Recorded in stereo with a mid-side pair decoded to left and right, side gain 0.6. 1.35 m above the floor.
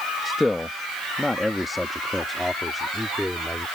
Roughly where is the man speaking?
Ahead.